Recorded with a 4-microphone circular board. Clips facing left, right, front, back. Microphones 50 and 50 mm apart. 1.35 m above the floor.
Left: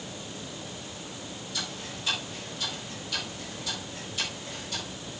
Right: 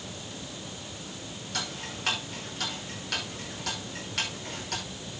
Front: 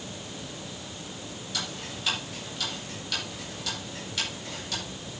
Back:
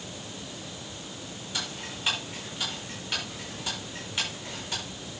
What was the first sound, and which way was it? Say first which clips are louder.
Ticking: right 3 dB, even; 115° right.